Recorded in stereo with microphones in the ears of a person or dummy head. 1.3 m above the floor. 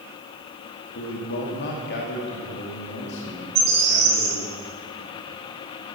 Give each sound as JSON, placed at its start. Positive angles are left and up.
{"t": 0.9, "sound": "a man speaking", "side_deg": 60, "distance_m": 2.5}
{"t": 3.5, "sound": "a bird", "side_deg": -40, "distance_m": 4.0}